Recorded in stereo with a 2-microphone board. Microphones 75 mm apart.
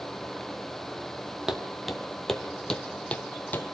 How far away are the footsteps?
About 2 m.